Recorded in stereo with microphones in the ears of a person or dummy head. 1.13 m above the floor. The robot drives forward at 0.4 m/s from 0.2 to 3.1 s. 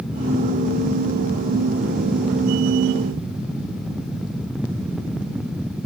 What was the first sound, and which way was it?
Only background noise.